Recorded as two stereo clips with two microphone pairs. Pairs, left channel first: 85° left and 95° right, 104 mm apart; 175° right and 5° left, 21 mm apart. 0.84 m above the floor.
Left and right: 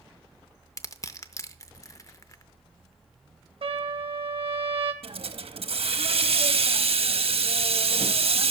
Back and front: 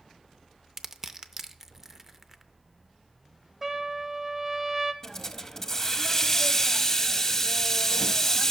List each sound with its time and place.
0.8 s crushing: 70° left, 0.5 m
3.6 s a trumpet: 65° right, 0.9 m
5.0 s a hiss: 105° right, 0.7 m